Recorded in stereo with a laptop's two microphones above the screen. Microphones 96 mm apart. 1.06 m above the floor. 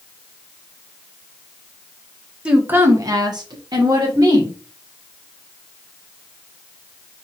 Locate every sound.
2.5 s a woman speaking: 10° right (ahead or behind), 0.9 m; by 4.6 s 40° right (ahead or behind), 1.7 m